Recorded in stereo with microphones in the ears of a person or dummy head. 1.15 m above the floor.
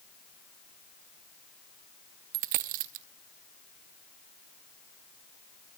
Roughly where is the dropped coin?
Right.